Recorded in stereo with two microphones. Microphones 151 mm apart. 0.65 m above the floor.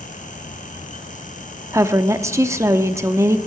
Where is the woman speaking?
20° right (ahead or behind), 0.8 m.